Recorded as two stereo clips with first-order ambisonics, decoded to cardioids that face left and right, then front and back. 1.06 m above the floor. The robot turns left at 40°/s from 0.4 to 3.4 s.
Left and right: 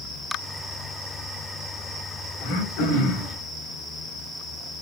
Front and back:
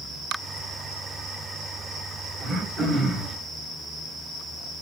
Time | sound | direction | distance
2.4 | throat clearing | 120° left | 4 m